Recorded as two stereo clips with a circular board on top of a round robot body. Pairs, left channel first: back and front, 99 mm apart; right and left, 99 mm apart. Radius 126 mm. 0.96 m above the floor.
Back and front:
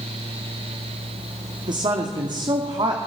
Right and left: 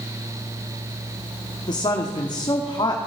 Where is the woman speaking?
45° right, 2.5 m.